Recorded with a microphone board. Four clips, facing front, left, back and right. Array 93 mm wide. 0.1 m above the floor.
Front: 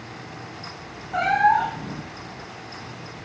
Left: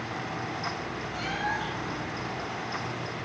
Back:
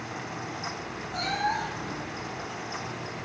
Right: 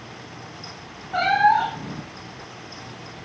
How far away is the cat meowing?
About 0.7 m.